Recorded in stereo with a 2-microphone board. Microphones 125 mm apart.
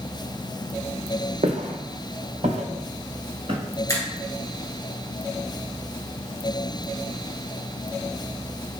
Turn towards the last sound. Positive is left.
turn(degrees=25)  # may be behind; listen again after turning